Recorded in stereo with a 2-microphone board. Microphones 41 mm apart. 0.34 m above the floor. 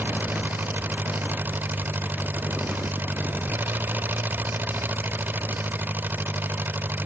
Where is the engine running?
50° right (ahead or behind).